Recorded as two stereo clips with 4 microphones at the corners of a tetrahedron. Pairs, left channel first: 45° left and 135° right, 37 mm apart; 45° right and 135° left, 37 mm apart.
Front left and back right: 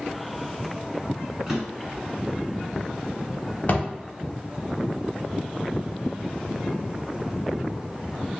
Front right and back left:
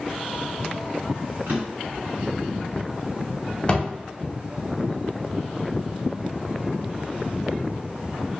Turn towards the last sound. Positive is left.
turn(degrees=15)